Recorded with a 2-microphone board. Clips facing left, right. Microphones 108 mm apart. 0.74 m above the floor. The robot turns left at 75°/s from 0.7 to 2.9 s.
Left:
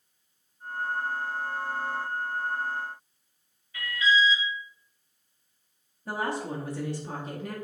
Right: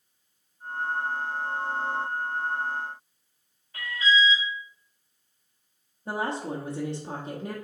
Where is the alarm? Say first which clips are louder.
Even; 45° right (ahead or behind), 3 m.